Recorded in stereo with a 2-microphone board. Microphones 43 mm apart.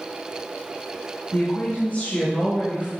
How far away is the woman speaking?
About 3 m.